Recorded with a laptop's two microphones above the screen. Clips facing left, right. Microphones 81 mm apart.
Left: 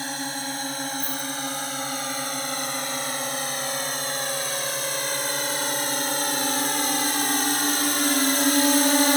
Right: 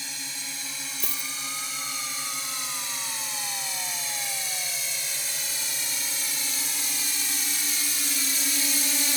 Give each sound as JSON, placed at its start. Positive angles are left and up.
{"t": 0.0, "sound": "a drone", "side_deg": 50}
{"t": 1.0, "sound": "a dropped coin", "side_deg": -75}